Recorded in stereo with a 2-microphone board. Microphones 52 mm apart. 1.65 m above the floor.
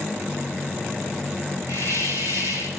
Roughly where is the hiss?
Right.